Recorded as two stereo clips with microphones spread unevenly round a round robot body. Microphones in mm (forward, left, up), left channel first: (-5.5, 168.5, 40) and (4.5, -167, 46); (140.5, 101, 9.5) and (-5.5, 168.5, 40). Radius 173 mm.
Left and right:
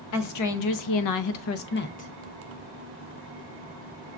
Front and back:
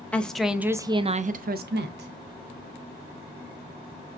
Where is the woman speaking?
55° left, 0.9 m; by 2.1 s 160° left, 0.7 m.